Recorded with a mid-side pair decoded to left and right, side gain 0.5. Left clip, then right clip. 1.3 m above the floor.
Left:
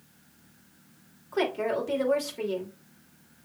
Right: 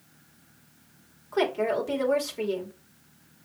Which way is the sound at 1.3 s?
5° right.